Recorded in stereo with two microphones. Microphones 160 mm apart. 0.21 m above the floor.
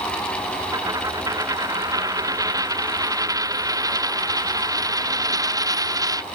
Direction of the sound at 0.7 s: 20° right (ahead or behind).